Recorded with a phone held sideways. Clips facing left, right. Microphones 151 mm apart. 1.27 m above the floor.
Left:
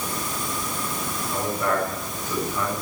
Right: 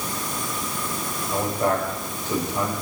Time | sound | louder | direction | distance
1.3 | a man speaking | right 2 dB | 30° right (ahead or behind) | 7.5 m